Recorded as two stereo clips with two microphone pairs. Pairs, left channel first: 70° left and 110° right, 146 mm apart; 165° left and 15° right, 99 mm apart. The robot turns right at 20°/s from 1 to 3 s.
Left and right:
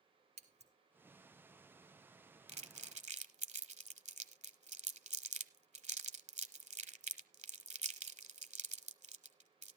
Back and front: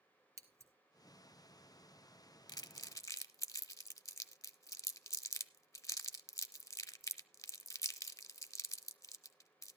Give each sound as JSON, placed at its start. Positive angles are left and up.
{"t": 0.4, "sound": "scissors", "azimuth_deg": -70, "distance_m": 1.4}
{"t": 2.5, "sound": "crumpling", "azimuth_deg": -150, "distance_m": 0.7}